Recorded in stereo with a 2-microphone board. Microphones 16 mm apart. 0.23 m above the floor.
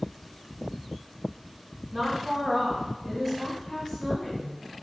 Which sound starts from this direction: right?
A woman speaking, at 1.9 s.